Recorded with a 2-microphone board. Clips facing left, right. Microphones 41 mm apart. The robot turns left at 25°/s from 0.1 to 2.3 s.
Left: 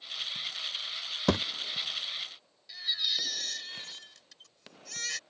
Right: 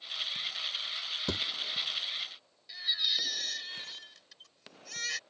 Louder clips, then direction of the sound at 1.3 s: Left 8 dB; 85° left.